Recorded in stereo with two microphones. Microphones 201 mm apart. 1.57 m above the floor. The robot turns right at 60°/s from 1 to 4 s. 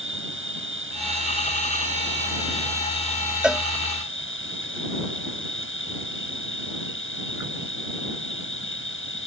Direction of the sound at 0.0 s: 90° right.